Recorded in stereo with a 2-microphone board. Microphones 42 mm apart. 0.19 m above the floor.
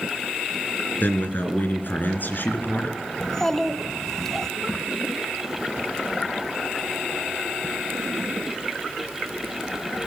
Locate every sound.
1.0 s a man speaking: 50° left (ahead or behind), 2.5 m
3.2 s a child speaking: 10° left (ahead or behind), 0.6 m